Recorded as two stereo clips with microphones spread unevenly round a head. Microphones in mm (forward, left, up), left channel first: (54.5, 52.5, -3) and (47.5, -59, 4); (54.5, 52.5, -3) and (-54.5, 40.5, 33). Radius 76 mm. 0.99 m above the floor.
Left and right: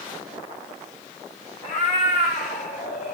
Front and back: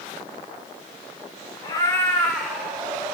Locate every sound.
1.6 s a cat meowing: 65° left, 1.7 m; by 3.2 s 120° left, 2.5 m